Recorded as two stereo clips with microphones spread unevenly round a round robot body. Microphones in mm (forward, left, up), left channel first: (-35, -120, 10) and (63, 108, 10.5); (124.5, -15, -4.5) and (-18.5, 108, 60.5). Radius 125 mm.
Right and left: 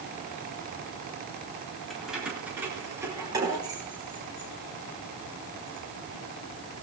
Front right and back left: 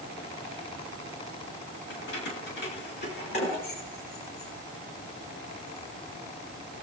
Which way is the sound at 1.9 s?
25° right.